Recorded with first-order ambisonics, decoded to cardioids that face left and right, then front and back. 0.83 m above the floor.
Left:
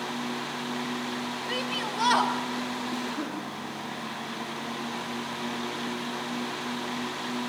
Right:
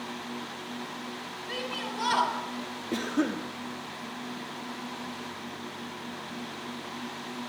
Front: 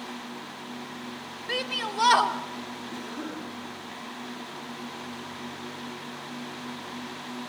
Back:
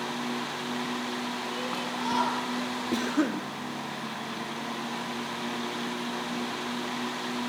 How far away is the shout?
About 2 m.